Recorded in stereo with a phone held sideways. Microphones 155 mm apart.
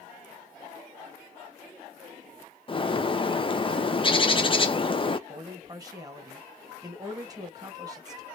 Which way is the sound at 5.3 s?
25° right (ahead or behind).